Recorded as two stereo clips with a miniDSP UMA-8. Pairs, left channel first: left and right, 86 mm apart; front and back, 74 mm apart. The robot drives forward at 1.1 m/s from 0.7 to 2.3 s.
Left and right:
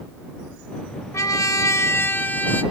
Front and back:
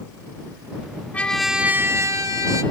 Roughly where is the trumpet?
Ahead left.